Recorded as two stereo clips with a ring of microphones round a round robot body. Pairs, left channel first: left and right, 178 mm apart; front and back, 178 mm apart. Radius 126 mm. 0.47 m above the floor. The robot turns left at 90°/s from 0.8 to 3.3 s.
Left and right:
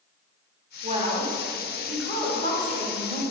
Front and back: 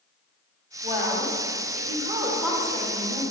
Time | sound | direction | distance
0.8 | a woman speaking | 125° right | 1.4 m